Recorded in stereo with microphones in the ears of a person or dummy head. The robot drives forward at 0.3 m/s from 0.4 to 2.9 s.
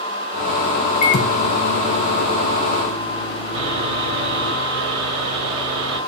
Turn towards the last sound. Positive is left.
turn(degrees=-20)  # may be behind; listen again after turning